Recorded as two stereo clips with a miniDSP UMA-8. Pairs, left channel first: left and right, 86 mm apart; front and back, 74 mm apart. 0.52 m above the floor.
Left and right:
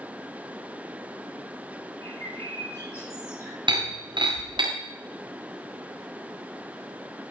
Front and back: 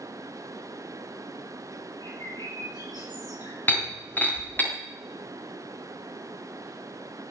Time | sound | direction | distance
2.0 | a bird | 30° left | 7 m
3.7 | breaking glass | 65° right | 6.5 m